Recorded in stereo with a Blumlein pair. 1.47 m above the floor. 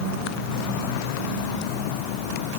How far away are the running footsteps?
I don't hear running footsteps.